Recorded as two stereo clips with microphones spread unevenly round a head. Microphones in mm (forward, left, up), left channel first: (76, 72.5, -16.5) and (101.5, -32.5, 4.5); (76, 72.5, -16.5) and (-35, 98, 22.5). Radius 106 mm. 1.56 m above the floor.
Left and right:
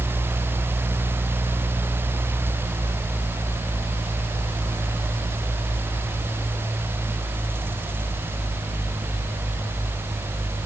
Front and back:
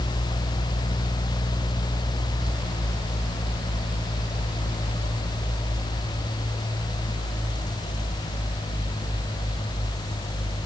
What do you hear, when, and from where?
Only background noise.